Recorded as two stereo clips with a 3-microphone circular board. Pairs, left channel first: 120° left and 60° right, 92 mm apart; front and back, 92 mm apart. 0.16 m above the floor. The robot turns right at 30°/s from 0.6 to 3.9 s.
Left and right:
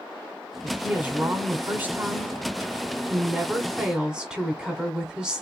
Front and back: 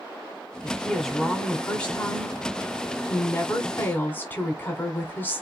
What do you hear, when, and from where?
0.6 s a woman speaking: 95° right, 1.7 m; by 5.4 s straight ahead, 1.7 m